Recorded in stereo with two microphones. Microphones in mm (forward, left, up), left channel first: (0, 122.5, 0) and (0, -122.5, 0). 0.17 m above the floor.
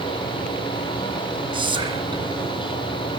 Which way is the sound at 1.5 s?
20° right (ahead or behind).